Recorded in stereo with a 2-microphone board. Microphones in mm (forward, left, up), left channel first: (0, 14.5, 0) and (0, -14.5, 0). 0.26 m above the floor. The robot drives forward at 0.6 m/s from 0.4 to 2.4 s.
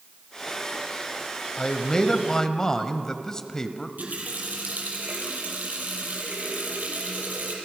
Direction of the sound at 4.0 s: 65° right (ahead or behind).